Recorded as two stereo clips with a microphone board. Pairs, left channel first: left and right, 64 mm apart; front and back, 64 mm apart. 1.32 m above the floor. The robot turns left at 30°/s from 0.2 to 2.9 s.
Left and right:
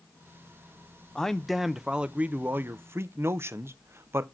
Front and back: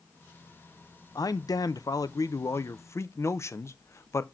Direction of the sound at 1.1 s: 10° left.